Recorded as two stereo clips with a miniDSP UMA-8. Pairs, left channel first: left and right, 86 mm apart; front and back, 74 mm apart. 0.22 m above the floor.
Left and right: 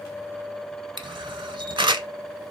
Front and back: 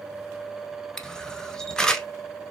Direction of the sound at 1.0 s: 80° right.